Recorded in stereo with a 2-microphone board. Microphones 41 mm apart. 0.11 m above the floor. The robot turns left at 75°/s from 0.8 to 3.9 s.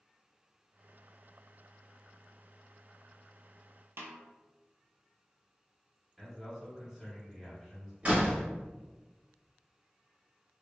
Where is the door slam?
30° right (ahead or behind), 1.1 m.